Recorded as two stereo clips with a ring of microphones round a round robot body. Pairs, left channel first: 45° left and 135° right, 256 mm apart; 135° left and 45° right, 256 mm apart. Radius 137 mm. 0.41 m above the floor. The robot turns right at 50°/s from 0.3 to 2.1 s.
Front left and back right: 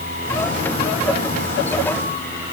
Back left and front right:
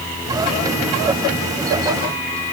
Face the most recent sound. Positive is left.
No sound to turn to.